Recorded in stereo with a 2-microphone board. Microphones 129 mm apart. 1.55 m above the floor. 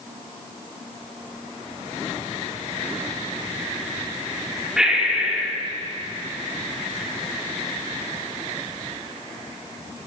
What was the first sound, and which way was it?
Breathing, 5° right (ahead or behind).